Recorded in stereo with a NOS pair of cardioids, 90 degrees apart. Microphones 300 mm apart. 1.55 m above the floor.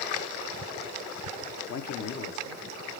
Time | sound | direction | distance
1.7 | a man speaking | 60° left | 0.9 m